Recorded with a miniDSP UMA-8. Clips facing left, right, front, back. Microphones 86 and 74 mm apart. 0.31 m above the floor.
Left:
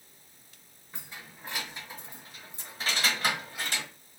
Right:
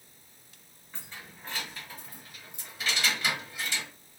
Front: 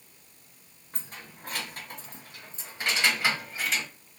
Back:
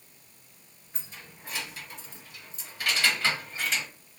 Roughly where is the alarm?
I don't hear an alarm.